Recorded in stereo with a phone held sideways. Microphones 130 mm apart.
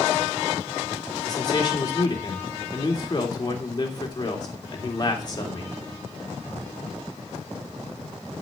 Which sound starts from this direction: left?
A man speaking, at 1.2 s.